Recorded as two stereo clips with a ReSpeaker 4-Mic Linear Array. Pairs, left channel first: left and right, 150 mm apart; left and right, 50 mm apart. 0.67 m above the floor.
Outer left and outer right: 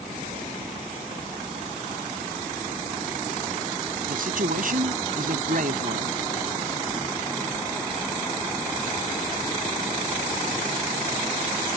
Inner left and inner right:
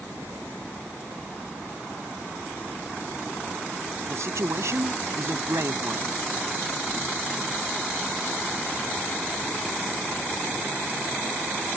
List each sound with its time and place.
4.1 s a man speaking: 70° right (ahead or behind)